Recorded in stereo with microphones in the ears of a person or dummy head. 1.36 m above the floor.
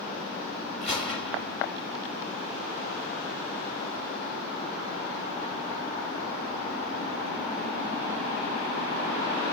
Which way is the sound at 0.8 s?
5° left (ahead or behind).